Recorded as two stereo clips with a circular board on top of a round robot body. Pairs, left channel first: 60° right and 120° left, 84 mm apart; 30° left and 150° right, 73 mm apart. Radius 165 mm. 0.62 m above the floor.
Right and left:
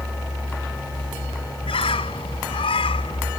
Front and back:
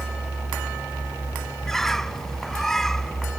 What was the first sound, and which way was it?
A bird, 55° right.